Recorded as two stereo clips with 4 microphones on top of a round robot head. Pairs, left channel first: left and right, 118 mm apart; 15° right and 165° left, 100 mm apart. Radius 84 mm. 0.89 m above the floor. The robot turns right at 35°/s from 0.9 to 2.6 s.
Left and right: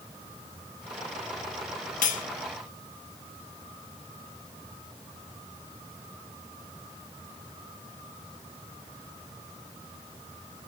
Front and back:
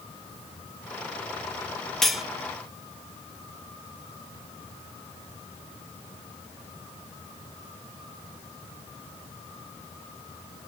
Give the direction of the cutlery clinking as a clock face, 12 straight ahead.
10 o'clock.